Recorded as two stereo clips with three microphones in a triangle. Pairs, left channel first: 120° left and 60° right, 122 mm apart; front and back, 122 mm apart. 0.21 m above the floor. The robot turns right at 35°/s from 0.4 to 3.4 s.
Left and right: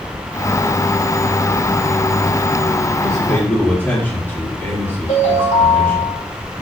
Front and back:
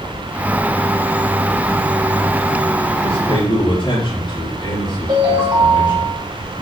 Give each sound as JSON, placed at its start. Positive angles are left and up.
{"t": 3.0, "sound": "a man speaking", "azimuth_deg": 35, "distance_m": 4.0}
{"t": 5.1, "sound": "a ringtone", "azimuth_deg": 130, "distance_m": 5.0}